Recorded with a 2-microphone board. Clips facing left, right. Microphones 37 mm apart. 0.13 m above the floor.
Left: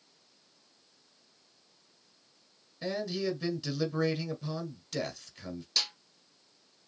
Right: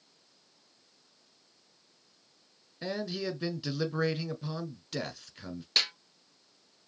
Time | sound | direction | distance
2.8 | a man speaking | 15° right (ahead or behind) | 1.2 m
5.8 | a snare drum | 45° right (ahead or behind) | 0.6 m